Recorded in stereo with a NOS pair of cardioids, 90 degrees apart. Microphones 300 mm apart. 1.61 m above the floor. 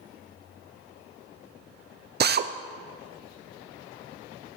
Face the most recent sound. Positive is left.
turn(degrees=-35)